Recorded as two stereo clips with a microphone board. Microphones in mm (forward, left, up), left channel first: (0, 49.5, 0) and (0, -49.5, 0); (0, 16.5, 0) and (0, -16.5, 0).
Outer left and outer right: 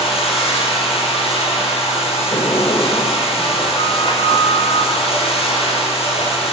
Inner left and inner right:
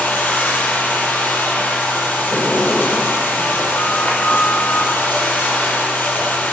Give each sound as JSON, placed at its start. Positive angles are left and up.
{"t": 0.0, "sound": "running water", "side_deg": 70, "distance_m": 7.0}
{"t": 2.3, "sound": "a sliding door", "side_deg": 45, "distance_m": 4.0}